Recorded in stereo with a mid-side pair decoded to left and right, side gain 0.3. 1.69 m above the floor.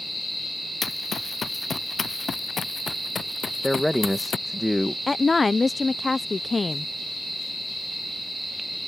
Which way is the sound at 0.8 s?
60° left.